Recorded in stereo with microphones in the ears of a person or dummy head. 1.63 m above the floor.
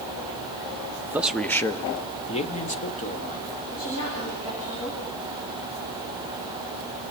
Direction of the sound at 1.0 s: 15° right (ahead or behind).